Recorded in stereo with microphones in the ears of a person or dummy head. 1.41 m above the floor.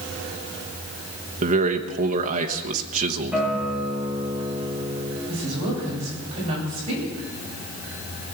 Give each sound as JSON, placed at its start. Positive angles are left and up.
{"t": 1.4, "sound": "a man speaking", "side_deg": -45, "distance_m": 1.2}
{"t": 3.3, "sound": "a guitar", "side_deg": -10, "distance_m": 4.5}
{"t": 5.3, "sound": "a woman speaking", "side_deg": -35, "distance_m": 9.5}